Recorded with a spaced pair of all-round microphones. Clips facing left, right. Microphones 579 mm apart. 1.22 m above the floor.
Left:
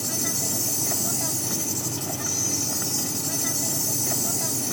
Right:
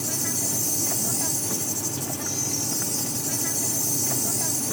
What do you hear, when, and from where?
0.0 s an insect: centre (ahead or behind)